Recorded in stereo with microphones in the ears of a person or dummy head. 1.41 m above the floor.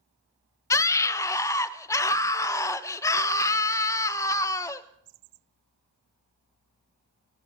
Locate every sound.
0.7 s a scream: 15° left (ahead or behind), 0.8 m